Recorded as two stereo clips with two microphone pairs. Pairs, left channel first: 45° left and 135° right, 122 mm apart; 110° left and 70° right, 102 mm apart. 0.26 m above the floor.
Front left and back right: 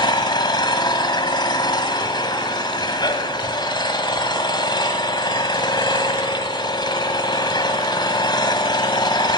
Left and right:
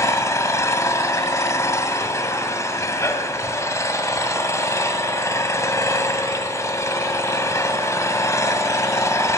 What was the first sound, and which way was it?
An engine running, 70° left.